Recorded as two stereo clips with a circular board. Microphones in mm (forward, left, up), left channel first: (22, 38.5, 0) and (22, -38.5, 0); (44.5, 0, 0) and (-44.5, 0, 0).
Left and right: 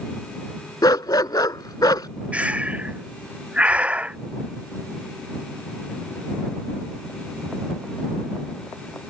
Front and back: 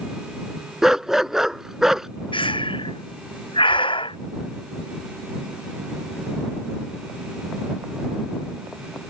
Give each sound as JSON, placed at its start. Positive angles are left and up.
{"t": 0.8, "sound": "a dog barking", "azimuth_deg": 95}
{"t": 2.3, "sound": "breathing", "azimuth_deg": -15}